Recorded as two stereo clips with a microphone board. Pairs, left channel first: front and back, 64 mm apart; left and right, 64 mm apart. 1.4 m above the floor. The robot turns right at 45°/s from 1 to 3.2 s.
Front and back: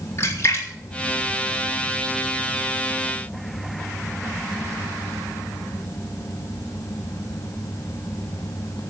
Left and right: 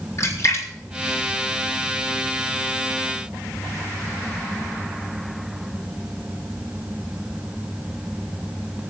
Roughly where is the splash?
Ahead left.